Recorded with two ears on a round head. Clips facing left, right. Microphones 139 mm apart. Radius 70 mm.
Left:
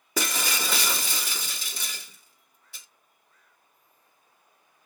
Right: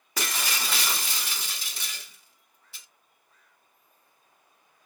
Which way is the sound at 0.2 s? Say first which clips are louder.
Left 3 dB; 80° left.